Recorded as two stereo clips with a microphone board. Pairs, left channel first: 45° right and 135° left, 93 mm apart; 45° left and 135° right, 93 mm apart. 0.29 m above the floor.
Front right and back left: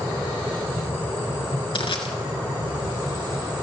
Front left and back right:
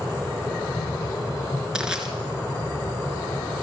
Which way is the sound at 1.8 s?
55° right.